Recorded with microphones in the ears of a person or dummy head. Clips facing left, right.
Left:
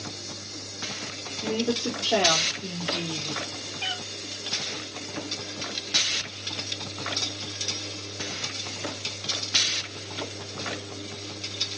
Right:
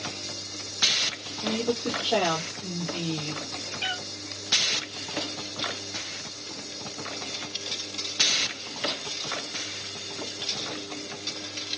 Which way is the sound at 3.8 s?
20° right (ahead or behind).